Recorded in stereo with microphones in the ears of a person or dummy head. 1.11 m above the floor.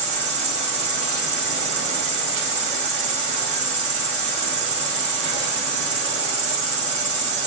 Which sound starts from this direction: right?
An insect, at 0.0 s.